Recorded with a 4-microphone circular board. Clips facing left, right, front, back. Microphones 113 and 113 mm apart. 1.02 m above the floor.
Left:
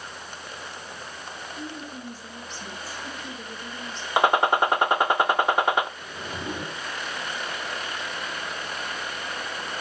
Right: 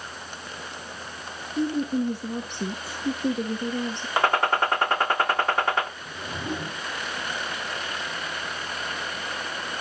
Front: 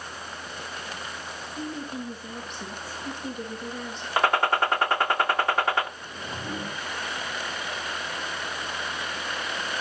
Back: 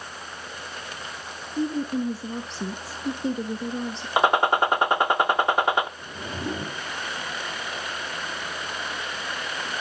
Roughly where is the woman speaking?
Behind right.